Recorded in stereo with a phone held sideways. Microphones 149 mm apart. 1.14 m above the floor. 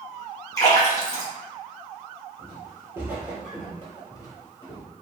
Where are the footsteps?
30° right (ahead or behind), 1.3 m; by 4.9 s 35° left (ahead or behind), 1.4 m.